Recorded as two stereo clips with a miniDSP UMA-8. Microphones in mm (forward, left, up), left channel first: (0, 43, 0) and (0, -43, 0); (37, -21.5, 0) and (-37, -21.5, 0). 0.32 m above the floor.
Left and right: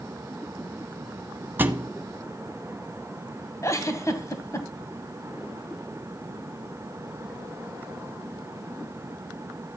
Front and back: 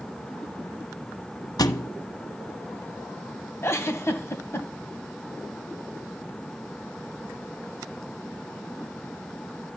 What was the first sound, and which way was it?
A thud, 25° right.